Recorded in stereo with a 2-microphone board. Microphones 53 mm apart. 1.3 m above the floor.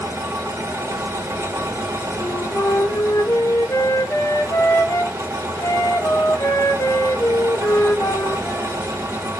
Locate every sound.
0.0 s an engine running: 80° right, 4 m
2.2 s a flute: 80° left, 1.7 m